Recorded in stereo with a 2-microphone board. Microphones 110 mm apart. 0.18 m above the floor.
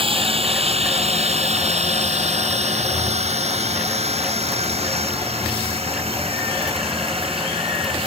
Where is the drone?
55° right (ahead or behind).